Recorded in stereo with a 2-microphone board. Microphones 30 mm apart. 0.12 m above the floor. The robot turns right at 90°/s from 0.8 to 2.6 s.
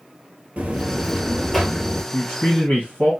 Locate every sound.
0.6 s a buzzer: 65° right, 0.9 m; by 2.0 s 45° left, 0.9 m
2.1 s a man speaking: 50° left, 1.8 m; by 3.1 s 90° left, 1.8 m